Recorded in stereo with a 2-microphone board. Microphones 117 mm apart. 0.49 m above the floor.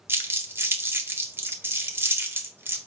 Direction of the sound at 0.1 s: 20° right (ahead or behind).